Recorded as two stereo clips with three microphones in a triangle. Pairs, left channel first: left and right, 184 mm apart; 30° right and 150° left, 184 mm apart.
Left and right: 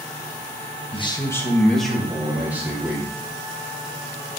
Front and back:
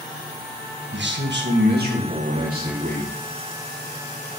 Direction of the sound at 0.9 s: 145° left.